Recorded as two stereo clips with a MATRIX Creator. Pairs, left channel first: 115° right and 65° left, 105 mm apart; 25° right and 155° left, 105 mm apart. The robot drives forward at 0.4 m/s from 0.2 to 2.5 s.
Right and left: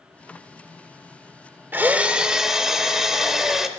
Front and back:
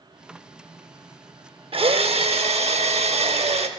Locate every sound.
1.7 s a drill: 135° left, 0.5 m; by 3.7 s 155° left, 0.7 m